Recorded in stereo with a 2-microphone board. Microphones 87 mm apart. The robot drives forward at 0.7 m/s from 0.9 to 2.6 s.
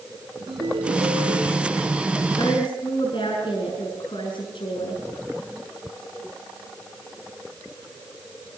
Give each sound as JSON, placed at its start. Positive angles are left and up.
{"t": 0.5, "sound": "a ringtone", "side_deg": -85, "distance_m": 6.5}
{"t": 2.3, "sound": "a woman speaking", "side_deg": 70, "distance_m": 6.5}